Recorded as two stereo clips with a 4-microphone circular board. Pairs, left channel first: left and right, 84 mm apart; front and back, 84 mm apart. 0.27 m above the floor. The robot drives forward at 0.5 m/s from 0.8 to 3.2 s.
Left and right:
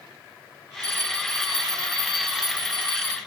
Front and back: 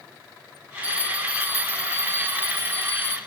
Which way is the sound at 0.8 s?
50° right.